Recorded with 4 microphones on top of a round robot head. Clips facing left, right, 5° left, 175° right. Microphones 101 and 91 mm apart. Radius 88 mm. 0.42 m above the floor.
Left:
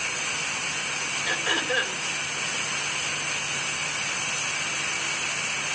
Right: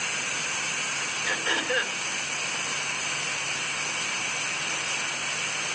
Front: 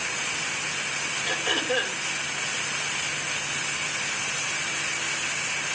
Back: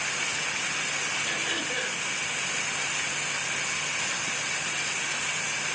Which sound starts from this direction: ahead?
Throat clearing, at 1.3 s.